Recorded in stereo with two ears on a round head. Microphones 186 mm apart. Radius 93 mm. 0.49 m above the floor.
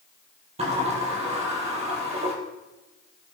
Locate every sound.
0.6 s a sliding door: 30° right (ahead or behind), 4 m